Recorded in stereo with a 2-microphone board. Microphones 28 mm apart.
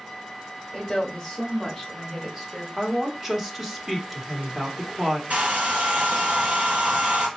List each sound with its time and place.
0.7 s a woman speaking: 10° left (ahead or behind), 1.5 m; by 2.7 s 30° right (ahead or behind), 1.5 m
2.8 s a woman speaking: 15° right (ahead or behind), 0.9 m
5.3 s a hair dryer: 65° right (ahead or behind), 1.5 m